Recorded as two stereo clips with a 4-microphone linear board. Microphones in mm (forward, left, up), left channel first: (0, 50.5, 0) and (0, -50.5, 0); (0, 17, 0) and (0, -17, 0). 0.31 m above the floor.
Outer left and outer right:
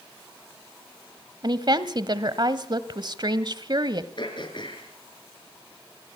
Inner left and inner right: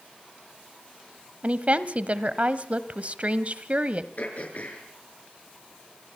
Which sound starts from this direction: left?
Throat clearing, at 4.2 s.